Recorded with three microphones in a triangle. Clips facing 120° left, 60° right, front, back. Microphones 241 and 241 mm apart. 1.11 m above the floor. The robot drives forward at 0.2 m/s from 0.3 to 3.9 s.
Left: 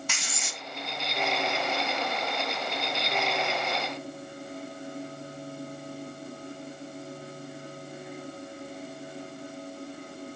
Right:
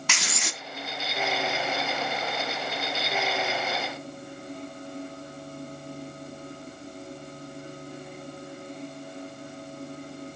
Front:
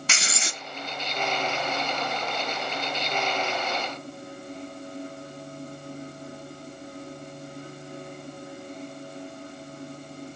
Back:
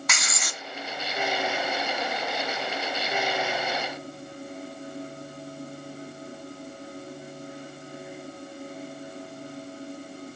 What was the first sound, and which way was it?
Writing, 65° right.